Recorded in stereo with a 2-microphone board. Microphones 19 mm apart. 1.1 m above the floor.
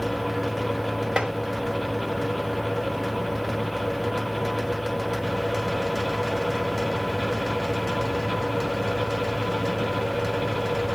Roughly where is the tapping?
Right.